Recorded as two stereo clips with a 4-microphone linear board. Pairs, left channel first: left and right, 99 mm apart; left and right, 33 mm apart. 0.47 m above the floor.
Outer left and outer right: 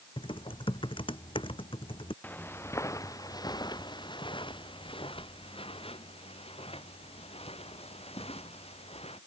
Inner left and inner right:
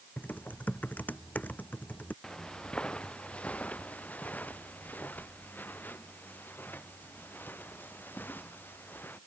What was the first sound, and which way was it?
Typing on a keyboard, 60° left (ahead or behind).